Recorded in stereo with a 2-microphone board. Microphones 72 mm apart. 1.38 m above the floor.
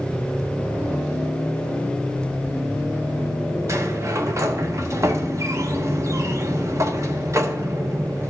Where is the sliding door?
45° right (ahead or behind), 0.8 m.